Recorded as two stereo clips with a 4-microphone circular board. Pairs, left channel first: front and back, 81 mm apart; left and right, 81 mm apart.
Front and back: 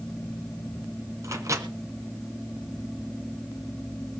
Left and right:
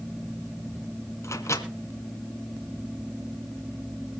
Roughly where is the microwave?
Behind left.